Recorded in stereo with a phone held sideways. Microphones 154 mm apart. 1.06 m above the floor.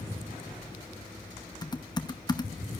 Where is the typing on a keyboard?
25° left (ahead or behind), 0.8 m.